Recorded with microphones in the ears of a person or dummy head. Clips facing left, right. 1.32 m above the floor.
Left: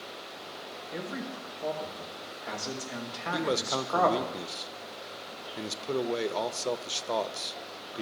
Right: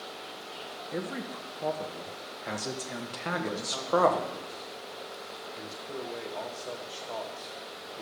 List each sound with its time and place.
0.9 s a man speaking: 45° right (ahead or behind), 1.3 m
3.3 s a man speaking: 75° left (ahead or behind), 0.6 m